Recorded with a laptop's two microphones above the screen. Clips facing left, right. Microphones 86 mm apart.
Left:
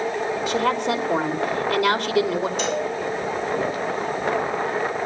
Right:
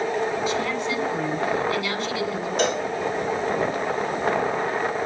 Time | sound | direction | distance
0.5 | a woman speaking | 75° left (ahead or behind) | 2.5 m
2.6 | a cowbell | 65° right (ahead or behind) | 3.5 m